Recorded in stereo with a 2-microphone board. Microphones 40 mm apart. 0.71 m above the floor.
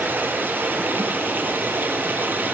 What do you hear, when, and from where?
0.0 s running water: 50° right (ahead or behind), 3.5 m